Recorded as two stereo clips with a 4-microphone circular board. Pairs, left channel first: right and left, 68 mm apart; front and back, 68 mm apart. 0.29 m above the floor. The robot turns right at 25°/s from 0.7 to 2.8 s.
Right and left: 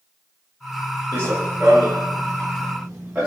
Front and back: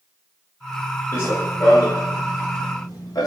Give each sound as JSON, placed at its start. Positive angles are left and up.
{"t": 1.1, "sound": "running footsteps", "azimuth_deg": 35, "distance_m": 1.5}